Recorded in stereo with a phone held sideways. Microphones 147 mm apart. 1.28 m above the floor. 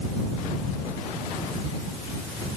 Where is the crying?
I don't hear crying.